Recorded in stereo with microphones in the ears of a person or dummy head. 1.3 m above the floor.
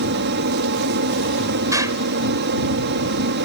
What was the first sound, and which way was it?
An aircraft, 50° right (ahead or behind).